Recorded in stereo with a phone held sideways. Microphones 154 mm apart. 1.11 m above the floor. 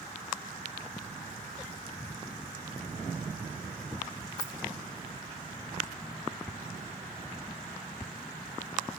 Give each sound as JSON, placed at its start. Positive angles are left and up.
{"t": 4.4, "sound": "a rattle", "side_deg": -60, "distance_m": 3.5}